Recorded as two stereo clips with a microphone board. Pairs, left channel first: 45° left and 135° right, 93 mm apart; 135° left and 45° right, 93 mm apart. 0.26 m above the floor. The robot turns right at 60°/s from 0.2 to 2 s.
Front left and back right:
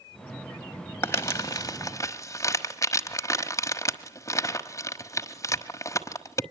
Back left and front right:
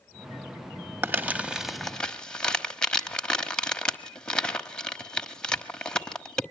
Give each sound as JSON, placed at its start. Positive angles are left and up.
{"t": 1.0, "sound": "crumpling", "azimuth_deg": 5, "distance_m": 1.2}